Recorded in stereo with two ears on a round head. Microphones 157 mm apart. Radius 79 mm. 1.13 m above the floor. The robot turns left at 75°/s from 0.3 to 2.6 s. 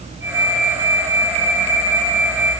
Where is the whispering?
No whispering in this recording.